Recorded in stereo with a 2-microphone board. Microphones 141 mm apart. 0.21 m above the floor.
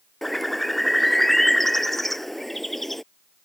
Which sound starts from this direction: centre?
A bird, at 0.2 s.